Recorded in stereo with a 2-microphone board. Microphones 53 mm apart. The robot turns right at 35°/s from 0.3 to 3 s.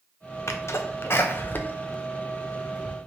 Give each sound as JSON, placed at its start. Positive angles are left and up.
{"t": 0.5, "sound": "a sneeze", "side_deg": 65, "distance_m": 0.7}